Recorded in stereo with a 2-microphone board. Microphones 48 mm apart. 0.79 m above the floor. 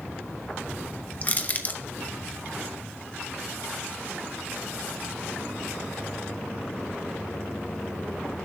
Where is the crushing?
35° left (ahead or behind), 1.0 m.